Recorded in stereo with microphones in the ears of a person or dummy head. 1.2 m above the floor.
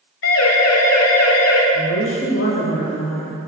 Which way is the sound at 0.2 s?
80° left.